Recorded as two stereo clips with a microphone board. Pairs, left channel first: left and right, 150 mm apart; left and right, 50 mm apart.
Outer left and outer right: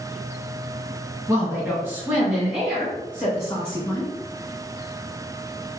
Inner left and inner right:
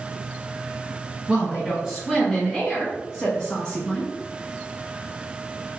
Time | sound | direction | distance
1.3 | a woman speaking | 20° right (ahead or behind) | 1.5 m